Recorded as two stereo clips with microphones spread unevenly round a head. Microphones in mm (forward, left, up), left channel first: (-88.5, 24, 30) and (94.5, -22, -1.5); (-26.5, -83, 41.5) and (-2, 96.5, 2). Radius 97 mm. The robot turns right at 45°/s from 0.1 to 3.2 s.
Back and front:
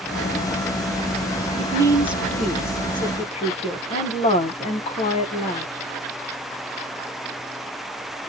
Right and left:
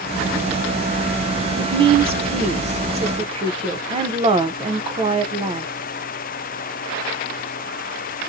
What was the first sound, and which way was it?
A woman speaking, 35° left.